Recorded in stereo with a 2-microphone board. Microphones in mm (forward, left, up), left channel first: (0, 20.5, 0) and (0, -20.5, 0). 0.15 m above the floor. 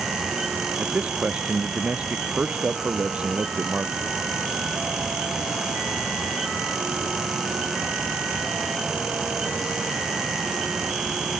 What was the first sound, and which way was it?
A man speaking, 30° right (ahead or behind).